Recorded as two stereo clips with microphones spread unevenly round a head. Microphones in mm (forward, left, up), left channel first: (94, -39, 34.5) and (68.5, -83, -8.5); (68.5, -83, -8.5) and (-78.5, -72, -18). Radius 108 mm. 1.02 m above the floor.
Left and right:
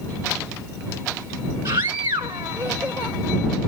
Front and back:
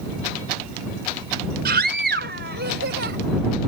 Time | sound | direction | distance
1.6 | a scream | straight behind | ?